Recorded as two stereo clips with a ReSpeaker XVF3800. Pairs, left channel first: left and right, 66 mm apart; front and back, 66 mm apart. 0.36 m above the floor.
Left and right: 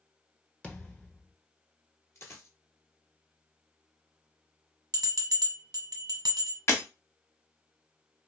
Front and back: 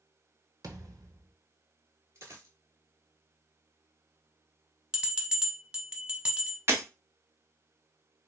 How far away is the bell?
About 1.0 m.